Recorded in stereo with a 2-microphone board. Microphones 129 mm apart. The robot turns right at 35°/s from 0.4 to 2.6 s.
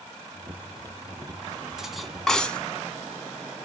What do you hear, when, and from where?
1.8 s cutlery clinking: 5° right (ahead or behind), 0.8 m; by 2.6 s 10° left (ahead or behind), 0.8 m